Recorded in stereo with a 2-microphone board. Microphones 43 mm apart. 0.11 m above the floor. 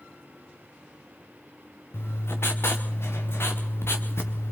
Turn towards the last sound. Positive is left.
turn(degrees=75)  # may be behind; listen again after turning